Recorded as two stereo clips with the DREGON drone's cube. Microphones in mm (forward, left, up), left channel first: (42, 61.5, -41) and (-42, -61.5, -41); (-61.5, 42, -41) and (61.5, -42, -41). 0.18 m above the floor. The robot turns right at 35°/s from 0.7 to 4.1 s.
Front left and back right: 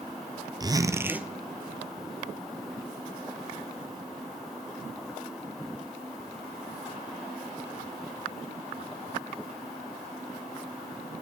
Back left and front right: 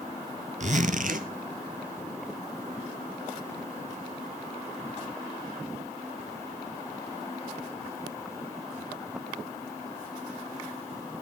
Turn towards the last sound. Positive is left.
turn(degrees=55)